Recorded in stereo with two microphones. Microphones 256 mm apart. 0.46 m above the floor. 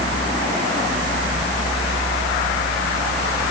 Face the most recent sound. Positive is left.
No sound to turn to.